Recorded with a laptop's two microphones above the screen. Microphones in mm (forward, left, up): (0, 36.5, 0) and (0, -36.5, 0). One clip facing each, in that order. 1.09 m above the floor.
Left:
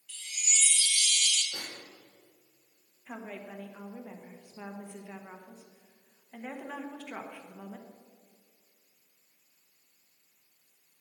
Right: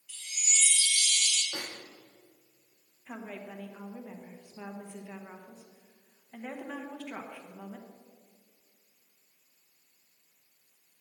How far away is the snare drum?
About 1.1 m.